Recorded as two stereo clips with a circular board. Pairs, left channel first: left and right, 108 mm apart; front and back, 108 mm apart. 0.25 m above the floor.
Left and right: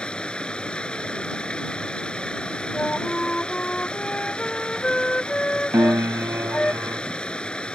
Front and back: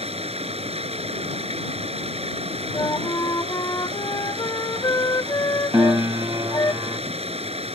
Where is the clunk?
I don't hear a clunk.